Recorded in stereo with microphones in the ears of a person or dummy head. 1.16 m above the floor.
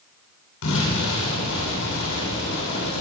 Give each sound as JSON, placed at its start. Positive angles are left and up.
{"t": 0.6, "sound": "an explosion", "side_deg": 70, "distance_m": 9.0}